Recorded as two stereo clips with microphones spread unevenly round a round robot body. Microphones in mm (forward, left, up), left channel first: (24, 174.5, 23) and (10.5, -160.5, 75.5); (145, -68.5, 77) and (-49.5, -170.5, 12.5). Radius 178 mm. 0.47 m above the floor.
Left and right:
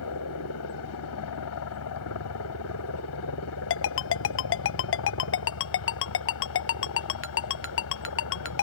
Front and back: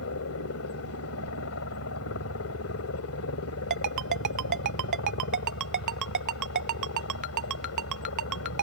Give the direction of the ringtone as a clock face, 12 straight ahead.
7 o'clock.